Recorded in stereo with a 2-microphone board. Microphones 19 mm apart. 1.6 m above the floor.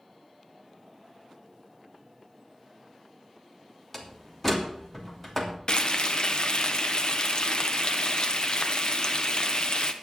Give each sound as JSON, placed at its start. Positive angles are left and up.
{"t": 3.9, "sound": "a door slam", "side_deg": 10, "distance_m": 2.5}
{"t": 5.7, "sound": "frying", "side_deg": 50, "distance_m": 1.1}